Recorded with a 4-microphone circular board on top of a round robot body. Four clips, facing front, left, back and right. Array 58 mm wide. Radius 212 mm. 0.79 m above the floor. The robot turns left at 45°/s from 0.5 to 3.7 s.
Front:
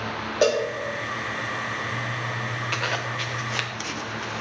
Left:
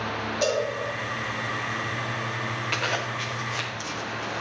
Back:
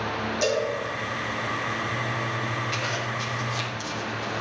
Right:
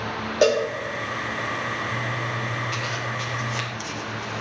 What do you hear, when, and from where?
0.4 s a cowbell: 60° right, 0.6 m; by 0.7 s 70° right, 0.6 m
2.7 s a zipper: 45° left, 0.8 m; by 4.4 s 5° left, 0.8 m